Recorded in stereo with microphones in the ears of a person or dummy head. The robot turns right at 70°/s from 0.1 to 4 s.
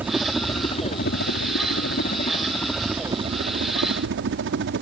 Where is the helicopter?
10° right; by 4.8 s 95° right.